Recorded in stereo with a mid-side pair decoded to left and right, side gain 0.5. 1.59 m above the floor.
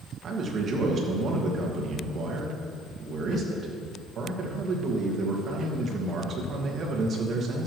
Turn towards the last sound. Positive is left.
turn(degrees=-50)